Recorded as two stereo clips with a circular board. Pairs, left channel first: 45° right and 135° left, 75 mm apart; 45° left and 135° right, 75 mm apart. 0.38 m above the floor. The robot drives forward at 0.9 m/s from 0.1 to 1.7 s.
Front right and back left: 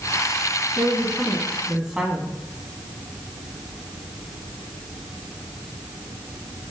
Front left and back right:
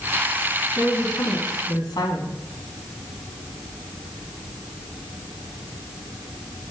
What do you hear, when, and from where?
0.8 s a woman speaking: 40° left, 3.5 m; by 2.4 s 50° left, 3 m